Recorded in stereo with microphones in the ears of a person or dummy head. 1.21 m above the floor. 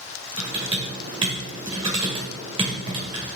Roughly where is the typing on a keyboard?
Right.